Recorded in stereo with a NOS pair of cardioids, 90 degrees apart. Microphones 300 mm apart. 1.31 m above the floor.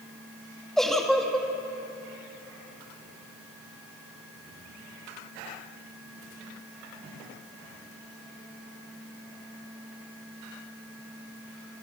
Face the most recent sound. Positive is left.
turn(degrees=0)